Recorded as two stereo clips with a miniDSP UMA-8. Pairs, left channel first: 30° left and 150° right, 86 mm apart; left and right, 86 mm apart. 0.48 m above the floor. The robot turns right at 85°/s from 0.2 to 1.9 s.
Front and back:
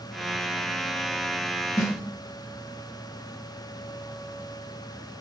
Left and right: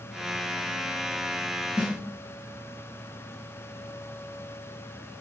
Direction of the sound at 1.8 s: 15° right.